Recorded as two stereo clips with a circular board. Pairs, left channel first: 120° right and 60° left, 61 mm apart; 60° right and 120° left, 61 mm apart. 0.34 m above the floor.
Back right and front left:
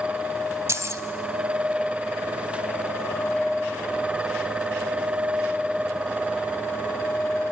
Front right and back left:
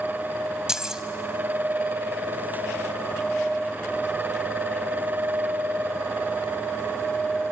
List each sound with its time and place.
0.7 s keys jangling: 45° left, 1.2 m